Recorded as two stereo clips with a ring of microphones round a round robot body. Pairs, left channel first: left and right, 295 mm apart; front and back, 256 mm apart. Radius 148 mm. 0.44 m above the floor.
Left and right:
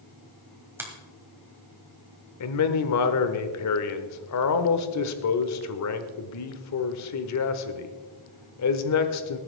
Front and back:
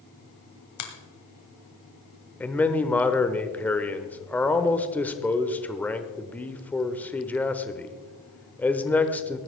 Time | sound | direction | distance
0.8 | a finger snap | 10° right | 2.0 m
2.4 | a man speaking | 85° left | 1.1 m